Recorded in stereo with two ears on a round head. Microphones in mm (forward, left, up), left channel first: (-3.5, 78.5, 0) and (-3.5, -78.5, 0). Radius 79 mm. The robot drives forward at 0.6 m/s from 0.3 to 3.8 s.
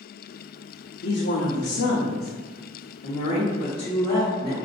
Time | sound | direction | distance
1.0 | a woman speaking | 65° left (ahead or behind) | 0.8 m